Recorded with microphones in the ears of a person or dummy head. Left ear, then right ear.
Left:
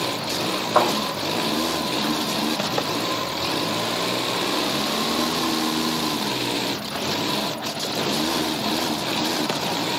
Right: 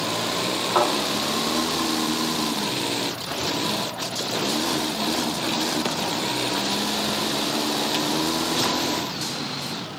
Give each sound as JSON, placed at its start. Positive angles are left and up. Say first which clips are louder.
{"t": 0.8, "sound": "a thud", "louder": "left 2 dB", "side_deg": -15, "distance_m": 1.8}